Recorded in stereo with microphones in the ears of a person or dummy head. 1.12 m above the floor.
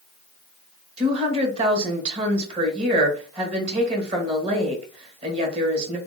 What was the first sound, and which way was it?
A woman speaking, 25° right (ahead or behind).